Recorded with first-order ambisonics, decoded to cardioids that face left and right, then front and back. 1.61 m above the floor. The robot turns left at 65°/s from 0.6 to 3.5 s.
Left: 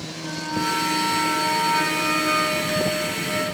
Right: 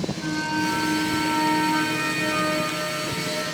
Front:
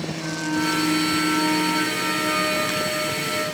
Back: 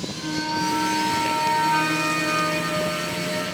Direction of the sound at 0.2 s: 95° right.